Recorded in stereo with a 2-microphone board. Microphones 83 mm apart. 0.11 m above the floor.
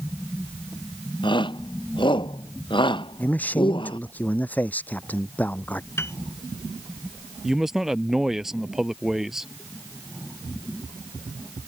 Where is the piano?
30° left (ahead or behind).